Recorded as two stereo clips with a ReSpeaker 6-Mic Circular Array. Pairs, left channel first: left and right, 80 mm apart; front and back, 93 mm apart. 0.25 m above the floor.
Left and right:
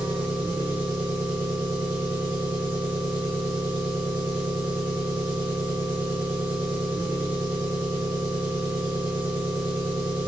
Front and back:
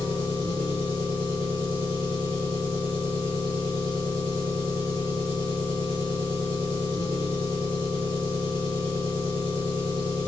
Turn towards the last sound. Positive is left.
turn(degrees=-155)